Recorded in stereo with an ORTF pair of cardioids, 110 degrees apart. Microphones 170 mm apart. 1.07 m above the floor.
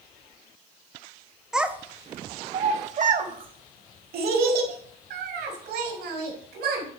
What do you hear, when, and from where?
1.5 s a child speaking: 5° right, 0.9 m; by 6.8 s 80° right, 3.5 m